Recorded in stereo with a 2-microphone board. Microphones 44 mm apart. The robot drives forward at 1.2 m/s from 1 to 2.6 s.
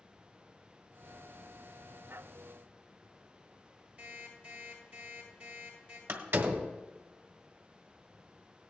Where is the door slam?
60° right (ahead or behind), 1.4 m.